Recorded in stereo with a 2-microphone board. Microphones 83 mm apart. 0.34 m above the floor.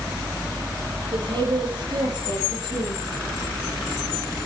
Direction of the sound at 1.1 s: 65° right (ahead or behind).